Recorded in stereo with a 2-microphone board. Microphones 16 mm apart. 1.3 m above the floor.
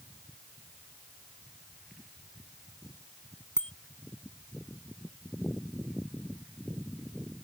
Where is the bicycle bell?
65° left (ahead or behind).